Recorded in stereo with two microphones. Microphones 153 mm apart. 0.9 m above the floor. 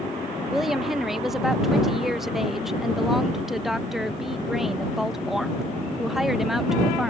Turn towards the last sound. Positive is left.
turn(degrees=0)  # may be behind; listen again after turning